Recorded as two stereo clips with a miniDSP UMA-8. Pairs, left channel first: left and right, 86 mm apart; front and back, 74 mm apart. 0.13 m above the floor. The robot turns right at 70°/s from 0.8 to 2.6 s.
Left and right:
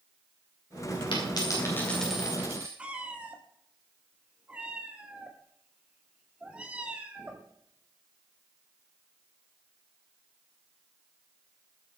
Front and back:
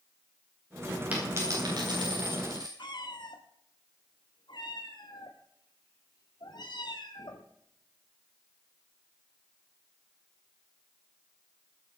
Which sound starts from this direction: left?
A dropped coin, at 1.1 s.